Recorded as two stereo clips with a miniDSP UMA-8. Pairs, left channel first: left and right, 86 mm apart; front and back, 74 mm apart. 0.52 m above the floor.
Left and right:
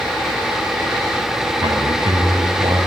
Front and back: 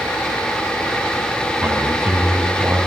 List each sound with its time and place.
1.6 s a man speaking: 120° right, 3.5 m